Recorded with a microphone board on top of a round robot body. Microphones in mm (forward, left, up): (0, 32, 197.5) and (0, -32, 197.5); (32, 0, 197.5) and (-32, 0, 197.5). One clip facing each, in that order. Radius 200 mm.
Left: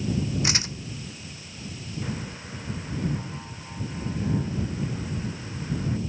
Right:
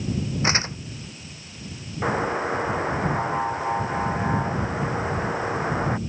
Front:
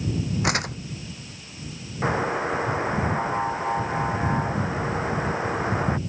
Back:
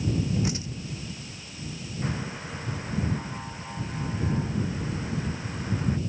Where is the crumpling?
30° right.